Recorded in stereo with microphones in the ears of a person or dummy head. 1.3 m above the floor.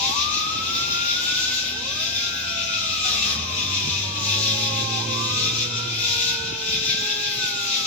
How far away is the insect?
About 1.0 m.